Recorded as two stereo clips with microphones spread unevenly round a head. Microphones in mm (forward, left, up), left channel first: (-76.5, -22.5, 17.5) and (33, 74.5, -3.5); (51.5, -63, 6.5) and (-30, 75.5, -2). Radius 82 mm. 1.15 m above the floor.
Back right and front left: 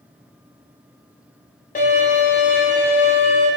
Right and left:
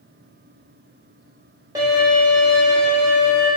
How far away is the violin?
About 1.0 m.